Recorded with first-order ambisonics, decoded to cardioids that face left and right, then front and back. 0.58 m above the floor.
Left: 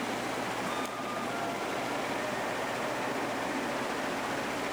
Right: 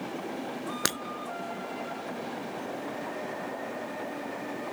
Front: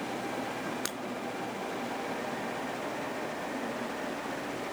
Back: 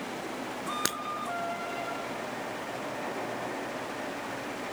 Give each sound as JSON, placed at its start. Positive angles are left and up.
{"t": 0.8, "sound": "breaking glass", "azimuth_deg": -110}